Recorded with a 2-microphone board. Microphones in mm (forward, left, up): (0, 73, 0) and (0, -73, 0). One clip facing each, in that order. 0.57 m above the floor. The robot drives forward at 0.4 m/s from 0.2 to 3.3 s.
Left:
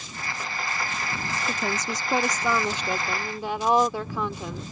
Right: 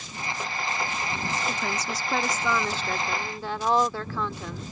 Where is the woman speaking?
20° left (ahead or behind); by 4.6 s 15° left (ahead or behind).